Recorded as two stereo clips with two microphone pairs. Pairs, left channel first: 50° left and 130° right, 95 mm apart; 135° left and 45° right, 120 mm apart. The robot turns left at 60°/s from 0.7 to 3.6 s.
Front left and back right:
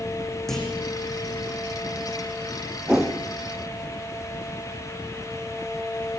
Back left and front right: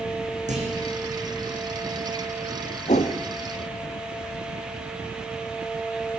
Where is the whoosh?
150° left, 3 m; by 3.2 s 130° left, 3 m.